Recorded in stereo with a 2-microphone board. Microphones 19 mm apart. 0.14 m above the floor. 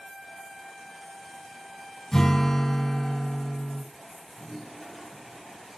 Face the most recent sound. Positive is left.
turn(degrees=-20)  # may be behind; listen again after turning